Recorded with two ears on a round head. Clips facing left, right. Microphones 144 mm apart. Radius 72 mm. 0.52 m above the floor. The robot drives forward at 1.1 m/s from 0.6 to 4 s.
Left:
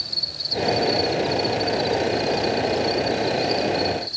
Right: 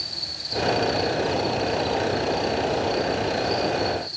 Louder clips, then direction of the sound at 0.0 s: Left 1 dB; 65° left (ahead or behind).